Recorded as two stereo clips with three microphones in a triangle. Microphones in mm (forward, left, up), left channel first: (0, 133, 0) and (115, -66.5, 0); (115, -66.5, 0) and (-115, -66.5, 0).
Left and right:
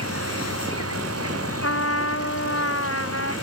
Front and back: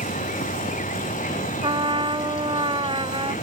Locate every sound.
0.0 s an insect: 60° right
1.6 s a trumpet: 110° left